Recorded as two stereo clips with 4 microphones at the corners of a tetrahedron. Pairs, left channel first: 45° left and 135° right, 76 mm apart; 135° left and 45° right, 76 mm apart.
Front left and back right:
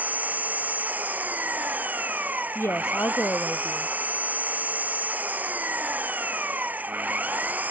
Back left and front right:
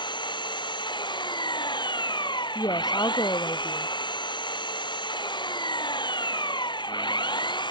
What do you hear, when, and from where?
0.0 s an engine running: 155° left
2.5 s a woman speaking: 105° left